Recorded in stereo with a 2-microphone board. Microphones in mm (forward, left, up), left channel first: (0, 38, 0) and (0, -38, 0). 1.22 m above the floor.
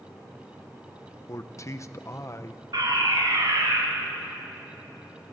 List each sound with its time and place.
1.3 s a man speaking: 40° left (ahead or behind), 0.8 m
2.7 s a fire alarm: 60° right (ahead or behind), 3.5 m